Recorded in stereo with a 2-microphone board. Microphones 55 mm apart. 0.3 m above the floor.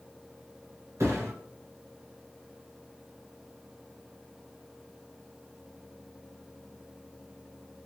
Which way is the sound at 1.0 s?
55° right (ahead or behind).